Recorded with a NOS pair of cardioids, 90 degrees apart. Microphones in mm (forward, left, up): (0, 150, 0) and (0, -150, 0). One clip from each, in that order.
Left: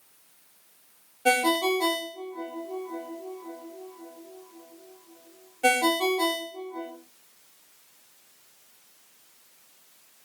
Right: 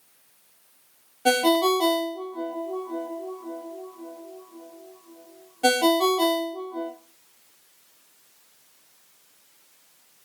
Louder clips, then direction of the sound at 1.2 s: Right 3 dB; 20° right.